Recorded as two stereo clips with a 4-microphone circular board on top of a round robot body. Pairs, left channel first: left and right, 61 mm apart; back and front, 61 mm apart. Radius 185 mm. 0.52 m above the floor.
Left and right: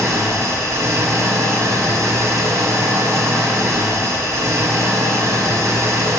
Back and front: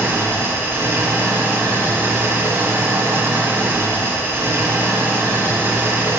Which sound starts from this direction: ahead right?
An engine running, at 0.0 s.